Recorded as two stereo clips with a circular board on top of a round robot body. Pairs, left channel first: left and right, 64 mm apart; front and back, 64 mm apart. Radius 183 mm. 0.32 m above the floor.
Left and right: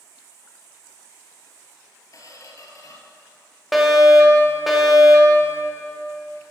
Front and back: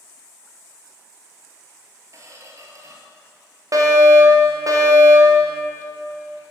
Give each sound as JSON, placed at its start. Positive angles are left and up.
{"t": 2.1, "sound": "a squeak", "azimuth_deg": 135, "distance_m": 1.5}
{"t": 3.7, "sound": "a fire alarm", "azimuth_deg": 180, "distance_m": 3.0}